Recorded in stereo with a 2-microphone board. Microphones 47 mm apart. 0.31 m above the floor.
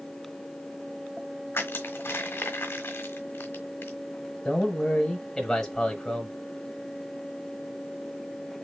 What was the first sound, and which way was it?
Crushing, 50° left (ahead or behind).